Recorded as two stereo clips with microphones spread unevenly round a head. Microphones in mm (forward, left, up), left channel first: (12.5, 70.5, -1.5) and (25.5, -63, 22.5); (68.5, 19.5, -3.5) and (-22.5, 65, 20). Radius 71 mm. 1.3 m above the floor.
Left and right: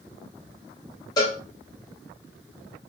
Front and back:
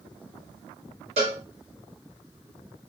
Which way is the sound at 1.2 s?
165° left.